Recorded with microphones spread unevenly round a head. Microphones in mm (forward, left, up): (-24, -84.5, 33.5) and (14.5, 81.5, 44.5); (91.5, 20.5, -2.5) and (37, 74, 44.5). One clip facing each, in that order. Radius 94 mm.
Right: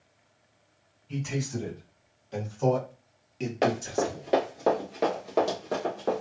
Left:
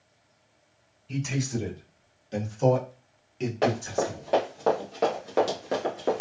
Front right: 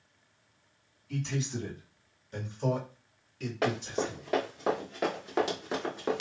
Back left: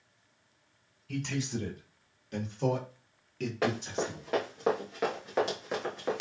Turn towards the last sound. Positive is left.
turn(degrees=95)